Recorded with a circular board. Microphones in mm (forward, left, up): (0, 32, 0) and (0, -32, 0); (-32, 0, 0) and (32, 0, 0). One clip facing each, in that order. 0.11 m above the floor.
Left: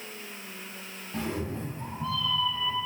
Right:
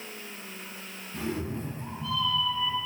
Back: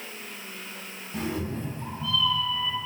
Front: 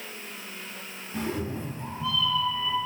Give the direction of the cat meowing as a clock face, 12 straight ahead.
9 o'clock.